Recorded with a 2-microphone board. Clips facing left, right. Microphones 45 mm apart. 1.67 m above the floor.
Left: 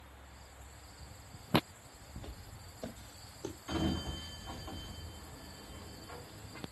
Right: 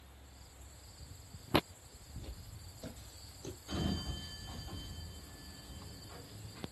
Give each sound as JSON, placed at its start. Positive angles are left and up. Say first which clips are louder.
{"t": 2.2, "sound": "footsteps", "louder": "left 2 dB", "side_deg": 40, "distance_m": 2.5}
{"t": 3.7, "sound": "a sliding door", "louder": "left 3 dB", "side_deg": 70, "distance_m": 3.0}